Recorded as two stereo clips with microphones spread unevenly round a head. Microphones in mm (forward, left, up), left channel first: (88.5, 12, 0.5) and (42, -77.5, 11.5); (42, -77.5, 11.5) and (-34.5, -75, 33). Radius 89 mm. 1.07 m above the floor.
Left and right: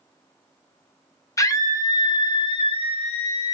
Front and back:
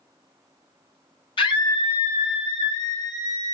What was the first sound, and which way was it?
A scream, 5° left.